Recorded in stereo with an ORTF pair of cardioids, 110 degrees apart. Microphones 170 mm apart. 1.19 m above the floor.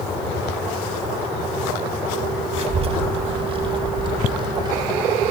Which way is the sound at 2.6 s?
35° right.